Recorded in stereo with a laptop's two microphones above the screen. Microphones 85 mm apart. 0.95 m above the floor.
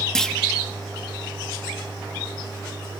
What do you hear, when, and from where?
0.1 s a clunk: 5° left (ahead or behind), 1.3 m